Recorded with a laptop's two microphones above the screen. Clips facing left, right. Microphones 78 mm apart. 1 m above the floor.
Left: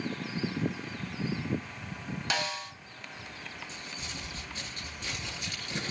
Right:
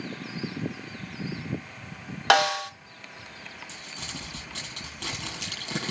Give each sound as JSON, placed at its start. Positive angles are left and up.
{"t": 2.3, "sound": "a snare drum", "side_deg": -65, "distance_m": 0.9}
{"t": 3.7, "sound": "crumpling", "side_deg": -85, "distance_m": 5.5}